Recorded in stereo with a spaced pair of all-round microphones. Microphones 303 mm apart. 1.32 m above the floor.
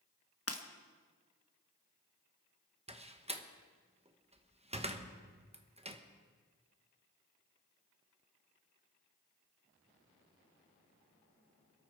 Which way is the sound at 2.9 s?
20° right (ahead or behind).